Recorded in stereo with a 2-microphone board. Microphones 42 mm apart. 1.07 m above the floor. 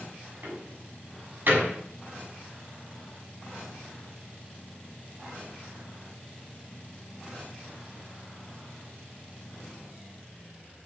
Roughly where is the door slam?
Right.